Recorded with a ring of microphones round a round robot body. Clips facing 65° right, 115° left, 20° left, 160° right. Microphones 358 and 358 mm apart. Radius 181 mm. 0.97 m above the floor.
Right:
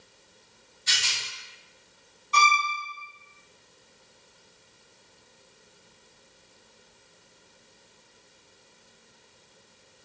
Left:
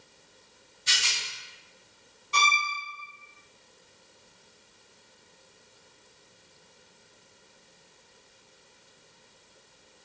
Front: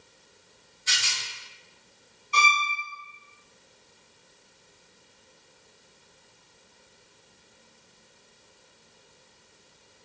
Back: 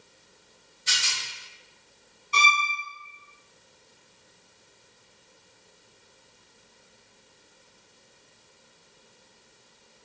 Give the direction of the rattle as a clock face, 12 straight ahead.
7 o'clock.